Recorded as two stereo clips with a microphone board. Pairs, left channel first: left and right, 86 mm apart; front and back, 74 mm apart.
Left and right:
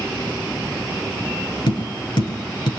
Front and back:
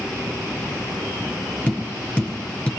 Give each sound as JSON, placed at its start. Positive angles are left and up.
{"t": 1.7, "sound": "tapping", "azimuth_deg": 75, "distance_m": 5.5}